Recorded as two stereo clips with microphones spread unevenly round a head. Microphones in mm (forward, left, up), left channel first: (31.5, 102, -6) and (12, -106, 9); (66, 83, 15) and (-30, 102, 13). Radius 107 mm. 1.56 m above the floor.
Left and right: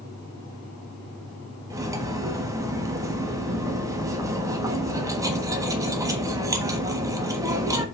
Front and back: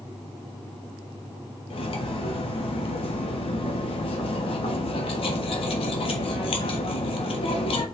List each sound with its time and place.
1.7 s cutlery clinking: 25° right, 1.3 m